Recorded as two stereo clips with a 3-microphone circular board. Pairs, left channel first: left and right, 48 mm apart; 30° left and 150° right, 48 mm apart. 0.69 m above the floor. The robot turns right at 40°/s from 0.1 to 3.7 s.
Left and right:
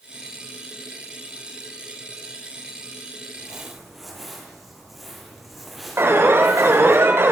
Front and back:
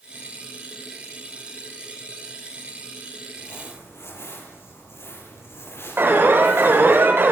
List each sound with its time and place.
3.3 s crumpling: 15° right, 8 m; by 7.0 s straight ahead, 8 m
6.0 s an alarm: 115° right, 4.5 m